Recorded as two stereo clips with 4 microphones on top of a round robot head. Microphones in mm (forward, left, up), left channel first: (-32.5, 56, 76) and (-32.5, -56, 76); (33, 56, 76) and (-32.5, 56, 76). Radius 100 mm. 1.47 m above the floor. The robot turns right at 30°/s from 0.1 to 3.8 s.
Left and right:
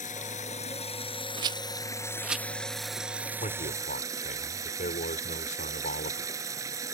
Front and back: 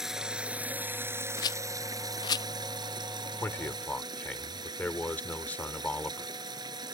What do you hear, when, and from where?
0.0 s running water: 95° left; by 6.9 s 150° right
1.4 s a rattle: 35° right; by 2.5 s straight ahead
3.4 s a man speaking: 55° left; by 6.3 s 65° left